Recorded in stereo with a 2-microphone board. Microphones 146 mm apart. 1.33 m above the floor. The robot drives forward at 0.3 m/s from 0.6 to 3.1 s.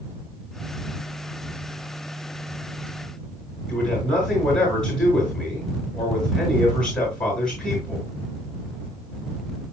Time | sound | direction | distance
3.7 | a man speaking | 5° left (ahead or behind) | 6.5 m